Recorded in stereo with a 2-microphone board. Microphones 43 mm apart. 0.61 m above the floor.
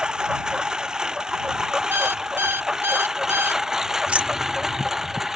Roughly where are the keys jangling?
Right.